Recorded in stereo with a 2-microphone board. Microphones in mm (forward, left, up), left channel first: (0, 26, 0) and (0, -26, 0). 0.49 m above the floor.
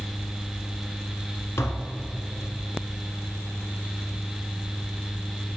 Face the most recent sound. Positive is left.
turn(degrees=60)  # may be behind; listen again after turning